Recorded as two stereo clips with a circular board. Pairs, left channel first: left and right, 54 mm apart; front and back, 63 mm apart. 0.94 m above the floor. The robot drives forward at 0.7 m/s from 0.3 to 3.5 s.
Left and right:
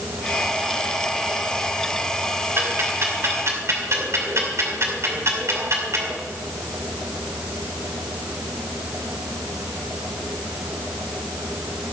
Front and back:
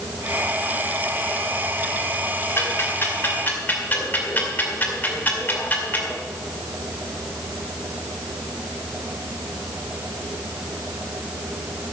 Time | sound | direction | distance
2.6 | ticking | 50° right | 3 m